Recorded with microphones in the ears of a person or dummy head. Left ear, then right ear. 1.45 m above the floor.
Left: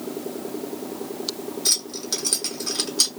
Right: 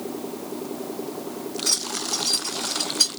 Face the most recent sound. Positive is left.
turn(degrees=65)  # may be behind; listen again after turning